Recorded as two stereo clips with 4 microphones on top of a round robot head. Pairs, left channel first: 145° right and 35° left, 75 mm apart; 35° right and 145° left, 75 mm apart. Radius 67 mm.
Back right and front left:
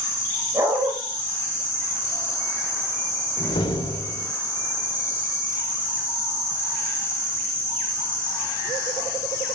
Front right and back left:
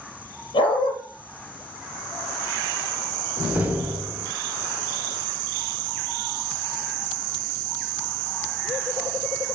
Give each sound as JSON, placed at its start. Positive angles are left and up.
{"t": 0.5, "sound": "a dog barking", "azimuth_deg": -30, "distance_m": 5.0}
{"t": 3.4, "sound": "a door slam", "azimuth_deg": -140, "distance_m": 2.0}